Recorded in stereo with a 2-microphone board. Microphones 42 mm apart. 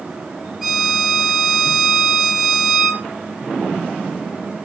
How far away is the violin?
About 3 m.